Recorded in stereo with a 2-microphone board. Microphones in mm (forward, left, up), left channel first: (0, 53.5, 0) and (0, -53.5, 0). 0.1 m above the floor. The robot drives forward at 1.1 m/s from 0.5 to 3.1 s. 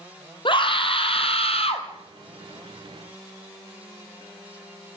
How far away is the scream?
About 3 m.